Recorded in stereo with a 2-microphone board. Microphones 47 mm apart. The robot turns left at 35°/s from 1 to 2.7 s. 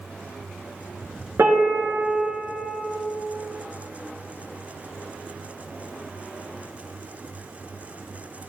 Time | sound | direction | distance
1.4 | a piano | 95° right | 2 m